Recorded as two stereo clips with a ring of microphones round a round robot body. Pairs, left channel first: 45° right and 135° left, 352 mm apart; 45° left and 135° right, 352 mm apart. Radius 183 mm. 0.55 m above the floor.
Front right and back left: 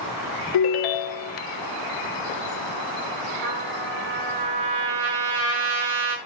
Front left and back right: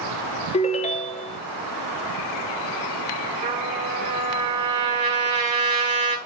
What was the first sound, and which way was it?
A ringtone, 25° right.